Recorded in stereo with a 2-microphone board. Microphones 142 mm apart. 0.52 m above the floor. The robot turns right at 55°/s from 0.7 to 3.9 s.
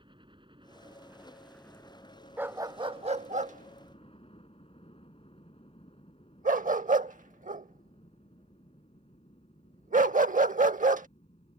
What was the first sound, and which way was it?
A helicopter, 35° right (ahead or behind).